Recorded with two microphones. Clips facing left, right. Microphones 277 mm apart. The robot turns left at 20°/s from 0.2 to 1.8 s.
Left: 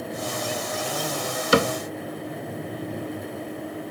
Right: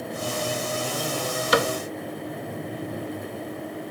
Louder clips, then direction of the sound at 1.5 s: Left 3 dB; 30° left (ahead or behind).